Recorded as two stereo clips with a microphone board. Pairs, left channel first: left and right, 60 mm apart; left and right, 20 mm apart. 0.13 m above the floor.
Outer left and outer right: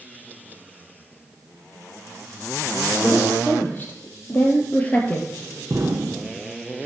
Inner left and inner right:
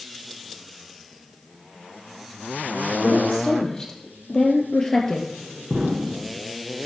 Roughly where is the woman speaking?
Left.